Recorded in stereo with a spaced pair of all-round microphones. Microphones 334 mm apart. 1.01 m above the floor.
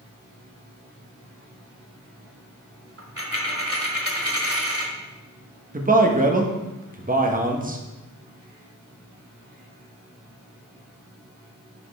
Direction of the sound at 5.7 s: 25° right (ahead or behind).